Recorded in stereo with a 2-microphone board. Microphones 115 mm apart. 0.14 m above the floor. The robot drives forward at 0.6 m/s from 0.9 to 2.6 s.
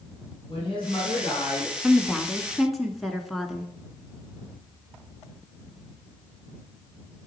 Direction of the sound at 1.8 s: Centre (ahead or behind).